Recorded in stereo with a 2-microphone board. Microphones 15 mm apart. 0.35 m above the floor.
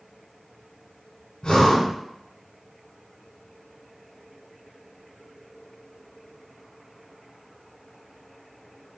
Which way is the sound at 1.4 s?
65° left (ahead or behind).